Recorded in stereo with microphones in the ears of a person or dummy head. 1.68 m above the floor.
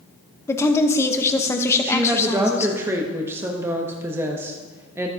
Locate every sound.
0.5 s a woman speaking: 10° left (ahead or behind), 0.8 m
1.8 s a woman speaking: 15° right (ahead or behind), 0.8 m